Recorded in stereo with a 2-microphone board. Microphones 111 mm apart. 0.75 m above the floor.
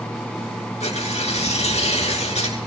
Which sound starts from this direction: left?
Tearing paper, at 0.8 s.